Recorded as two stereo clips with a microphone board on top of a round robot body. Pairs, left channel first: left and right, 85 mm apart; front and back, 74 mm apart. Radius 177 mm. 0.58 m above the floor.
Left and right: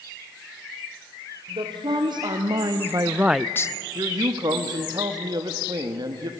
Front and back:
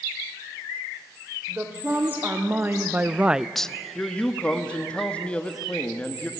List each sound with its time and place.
1.5 s a woman speaking: 115° right, 2.5 m; by 3.7 s 75° left, 0.8 m
4.0 s a man speaking: 70° right, 1.6 m